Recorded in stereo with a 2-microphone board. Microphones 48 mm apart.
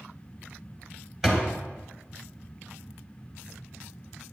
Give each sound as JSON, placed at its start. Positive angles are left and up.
{"t": 1.2, "sound": "a door slam", "side_deg": -10, "distance_m": 1.5}